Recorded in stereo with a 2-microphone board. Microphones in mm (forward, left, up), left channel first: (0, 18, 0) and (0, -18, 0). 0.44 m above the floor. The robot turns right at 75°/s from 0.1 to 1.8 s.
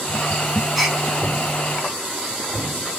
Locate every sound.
0.8 s a gasp: centre (ahead or behind), 1.9 m; by 1.0 s 15° right (ahead or behind), 1.9 m